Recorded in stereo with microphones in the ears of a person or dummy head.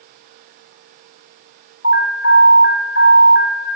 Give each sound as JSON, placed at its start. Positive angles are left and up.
{"t": 1.8, "sound": "an alarm", "side_deg": 50, "distance_m": 1.2}